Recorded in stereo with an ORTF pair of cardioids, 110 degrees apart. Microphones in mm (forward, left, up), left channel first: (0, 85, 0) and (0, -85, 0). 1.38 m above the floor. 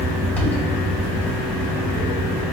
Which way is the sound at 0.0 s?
10° left.